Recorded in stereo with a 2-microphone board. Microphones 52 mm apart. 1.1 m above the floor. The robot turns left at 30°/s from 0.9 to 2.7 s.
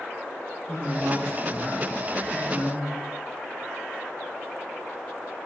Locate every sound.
0.7 s a woman speaking: 80° right, 1.0 m; by 3.0 s 135° right, 1.0 m